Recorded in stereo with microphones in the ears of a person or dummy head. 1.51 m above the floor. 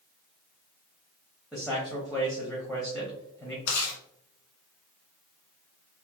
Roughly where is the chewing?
Left.